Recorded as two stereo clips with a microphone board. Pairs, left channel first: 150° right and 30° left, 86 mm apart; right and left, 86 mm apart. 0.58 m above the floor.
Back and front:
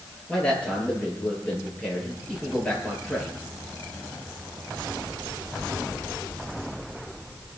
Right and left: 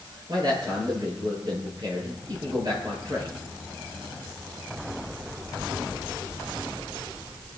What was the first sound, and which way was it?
A man speaking, 130° left.